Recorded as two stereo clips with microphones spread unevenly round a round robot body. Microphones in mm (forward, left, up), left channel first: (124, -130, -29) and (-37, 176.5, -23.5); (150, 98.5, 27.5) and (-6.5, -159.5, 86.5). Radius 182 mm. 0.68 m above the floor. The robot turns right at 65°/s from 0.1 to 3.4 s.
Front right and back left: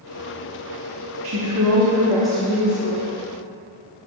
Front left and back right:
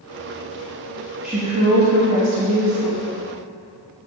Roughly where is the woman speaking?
Behind left.